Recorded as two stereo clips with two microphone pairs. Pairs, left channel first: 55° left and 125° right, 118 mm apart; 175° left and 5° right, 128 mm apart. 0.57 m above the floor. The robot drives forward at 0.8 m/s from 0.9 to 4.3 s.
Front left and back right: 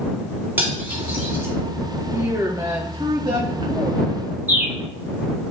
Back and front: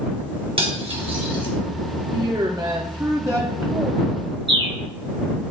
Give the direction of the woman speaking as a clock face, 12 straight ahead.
2 o'clock.